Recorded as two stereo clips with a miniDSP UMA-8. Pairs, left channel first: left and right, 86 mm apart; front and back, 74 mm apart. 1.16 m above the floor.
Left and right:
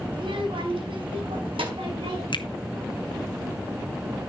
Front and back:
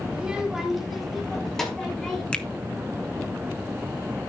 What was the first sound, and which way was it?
A child speaking, 105° right.